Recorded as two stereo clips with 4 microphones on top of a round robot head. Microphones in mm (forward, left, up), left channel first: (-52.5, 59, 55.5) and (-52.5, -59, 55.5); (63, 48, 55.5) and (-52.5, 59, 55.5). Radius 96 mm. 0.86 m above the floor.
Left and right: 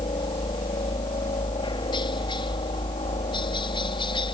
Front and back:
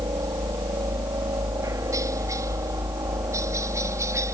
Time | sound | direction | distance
0.0 | a helicopter | 125° left | ?